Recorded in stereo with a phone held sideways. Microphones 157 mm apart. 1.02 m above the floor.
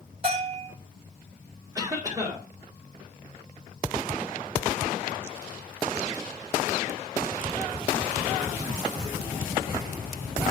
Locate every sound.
0.2 s a bell: 35° right (ahead or behind), 5.5 m
1.8 s a cough: 25° right (ahead or behind), 3.5 m